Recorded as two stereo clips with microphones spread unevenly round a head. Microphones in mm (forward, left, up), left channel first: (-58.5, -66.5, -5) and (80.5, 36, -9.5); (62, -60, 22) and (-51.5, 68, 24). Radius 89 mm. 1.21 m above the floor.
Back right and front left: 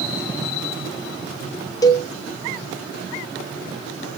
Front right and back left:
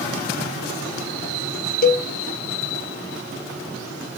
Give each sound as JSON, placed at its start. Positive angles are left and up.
{"t": 1.8, "sound": "a cowbell", "azimuth_deg": -75, "distance_m": 0.7}